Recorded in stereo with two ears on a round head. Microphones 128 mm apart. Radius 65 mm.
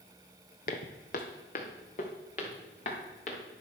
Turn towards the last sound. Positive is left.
turn(degrees=60)  # may be behind; listen again after turning